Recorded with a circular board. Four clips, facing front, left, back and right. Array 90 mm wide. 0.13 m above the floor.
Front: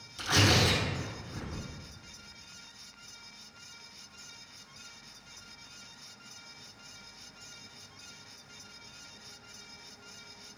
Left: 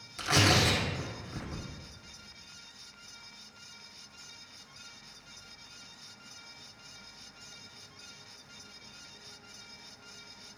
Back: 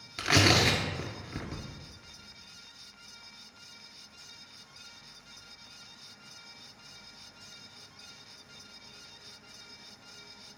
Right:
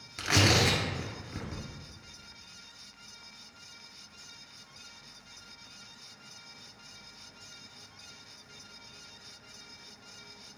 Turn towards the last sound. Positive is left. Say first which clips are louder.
# even, back 2 dB
turn(degrees=-165)